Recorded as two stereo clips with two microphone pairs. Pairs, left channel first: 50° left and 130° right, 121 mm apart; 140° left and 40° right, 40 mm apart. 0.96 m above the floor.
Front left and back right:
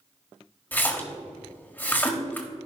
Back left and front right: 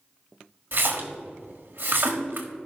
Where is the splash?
25° right, 1.4 m.